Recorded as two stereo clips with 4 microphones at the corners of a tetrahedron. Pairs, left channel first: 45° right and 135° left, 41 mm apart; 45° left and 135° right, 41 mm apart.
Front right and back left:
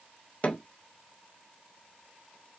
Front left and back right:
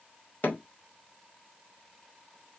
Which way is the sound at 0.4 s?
5° left.